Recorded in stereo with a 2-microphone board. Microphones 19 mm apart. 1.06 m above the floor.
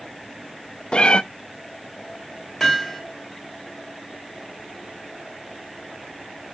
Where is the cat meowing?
55° left (ahead or behind), 0.5 m.